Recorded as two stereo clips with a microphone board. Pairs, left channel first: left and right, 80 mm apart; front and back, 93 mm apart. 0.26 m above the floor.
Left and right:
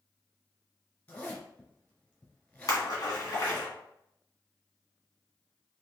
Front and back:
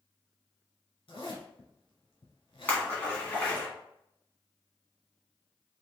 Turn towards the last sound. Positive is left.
turn(degrees=70)